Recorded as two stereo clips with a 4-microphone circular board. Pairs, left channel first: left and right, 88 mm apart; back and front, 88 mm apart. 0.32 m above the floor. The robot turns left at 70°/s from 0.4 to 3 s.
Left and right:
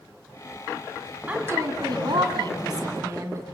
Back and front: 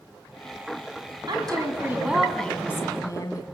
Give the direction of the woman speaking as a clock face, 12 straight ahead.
1 o'clock.